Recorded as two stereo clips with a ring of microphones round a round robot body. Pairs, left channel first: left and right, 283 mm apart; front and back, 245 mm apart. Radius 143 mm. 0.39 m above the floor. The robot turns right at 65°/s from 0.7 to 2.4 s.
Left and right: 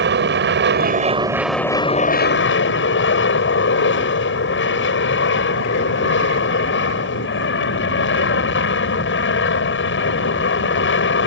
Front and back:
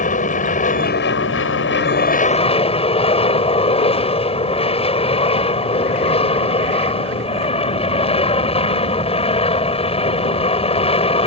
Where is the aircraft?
50° right; by 11.3 s 60° left.